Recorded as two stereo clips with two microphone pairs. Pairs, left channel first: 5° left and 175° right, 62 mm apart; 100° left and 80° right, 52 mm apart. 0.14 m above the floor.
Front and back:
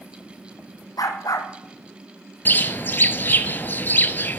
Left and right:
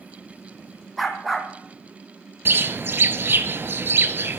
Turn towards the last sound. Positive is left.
turn(degrees=-45)